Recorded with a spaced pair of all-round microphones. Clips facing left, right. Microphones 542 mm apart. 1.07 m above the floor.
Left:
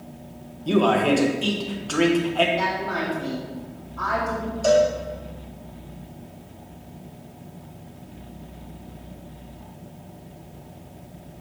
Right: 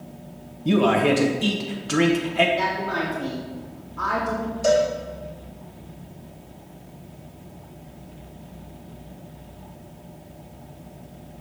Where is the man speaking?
45° right (ahead or behind), 1.0 m.